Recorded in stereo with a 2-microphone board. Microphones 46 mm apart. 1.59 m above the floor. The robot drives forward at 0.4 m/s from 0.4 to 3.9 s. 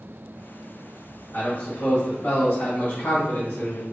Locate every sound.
1.3 s a man speaking: 30° left (ahead or behind), 1.9 m; by 3.8 s 60° left (ahead or behind), 1.2 m